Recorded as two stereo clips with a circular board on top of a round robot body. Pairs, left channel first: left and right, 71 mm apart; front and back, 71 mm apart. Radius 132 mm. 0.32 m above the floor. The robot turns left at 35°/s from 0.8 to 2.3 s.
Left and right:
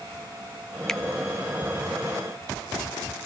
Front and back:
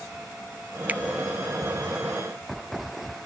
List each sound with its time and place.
0.9 s a finger snap: 160° left, 0.7 m